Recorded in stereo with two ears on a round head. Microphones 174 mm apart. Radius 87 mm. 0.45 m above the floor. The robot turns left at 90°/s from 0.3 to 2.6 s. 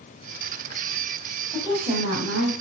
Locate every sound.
1.5 s a woman speaking: 5° left, 2.5 m; by 2.5 s 85° right, 2.5 m